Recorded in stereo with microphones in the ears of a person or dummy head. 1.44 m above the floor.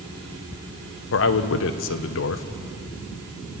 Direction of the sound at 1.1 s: 65° left (ahead or behind).